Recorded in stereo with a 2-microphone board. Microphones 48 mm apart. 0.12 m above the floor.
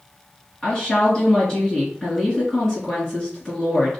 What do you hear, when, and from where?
0.6 s a woman speaking: 20° left (ahead or behind), 1.8 m